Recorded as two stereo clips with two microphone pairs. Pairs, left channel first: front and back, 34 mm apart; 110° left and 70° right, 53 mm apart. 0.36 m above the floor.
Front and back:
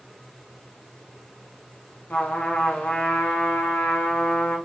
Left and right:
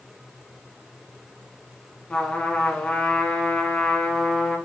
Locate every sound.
2.1 s a trumpet: 40° left, 0.8 m